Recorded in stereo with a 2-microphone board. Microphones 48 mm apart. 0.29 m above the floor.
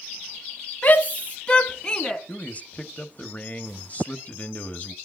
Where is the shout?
40° left (ahead or behind), 2.5 m; by 2.2 s 15° left (ahead or behind), 3.5 m.